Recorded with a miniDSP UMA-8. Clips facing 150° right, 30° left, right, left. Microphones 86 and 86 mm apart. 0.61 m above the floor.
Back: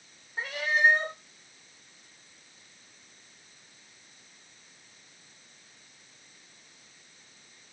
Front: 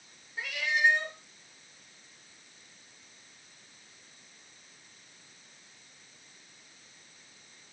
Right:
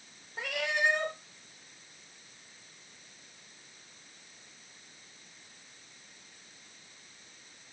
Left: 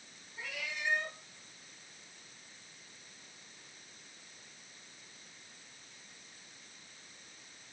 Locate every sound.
0.4 s a cat meowing: 100° right, 0.5 m